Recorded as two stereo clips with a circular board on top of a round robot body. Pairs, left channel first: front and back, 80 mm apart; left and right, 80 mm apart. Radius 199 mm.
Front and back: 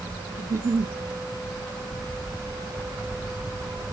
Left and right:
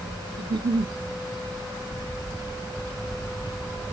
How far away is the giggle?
About 0.6 m.